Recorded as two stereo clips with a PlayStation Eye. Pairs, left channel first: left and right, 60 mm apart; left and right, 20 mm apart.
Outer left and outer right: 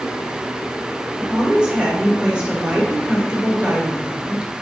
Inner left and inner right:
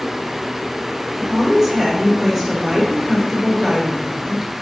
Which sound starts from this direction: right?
A woman speaking, at 1.2 s.